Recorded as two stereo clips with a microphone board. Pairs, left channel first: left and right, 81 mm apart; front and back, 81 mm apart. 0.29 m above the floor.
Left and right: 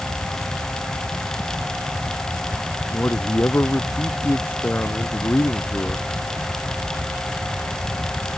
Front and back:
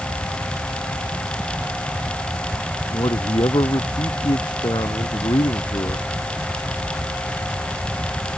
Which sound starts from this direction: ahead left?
A man speaking, at 2.9 s.